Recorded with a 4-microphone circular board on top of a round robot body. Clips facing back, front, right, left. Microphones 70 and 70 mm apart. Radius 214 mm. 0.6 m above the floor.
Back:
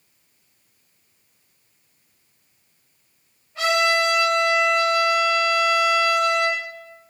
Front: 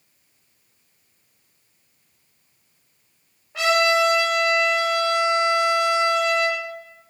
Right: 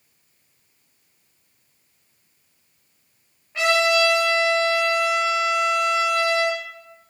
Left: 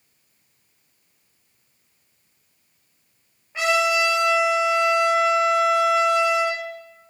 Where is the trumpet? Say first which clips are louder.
Front 1 dB, right 1 dB; 10° left, 5 m.